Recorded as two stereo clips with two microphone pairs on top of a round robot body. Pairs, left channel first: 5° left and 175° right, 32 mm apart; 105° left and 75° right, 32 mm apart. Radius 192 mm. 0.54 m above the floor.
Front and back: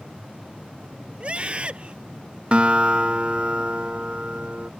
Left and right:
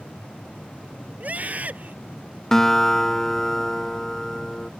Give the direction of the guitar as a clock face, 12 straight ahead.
6 o'clock.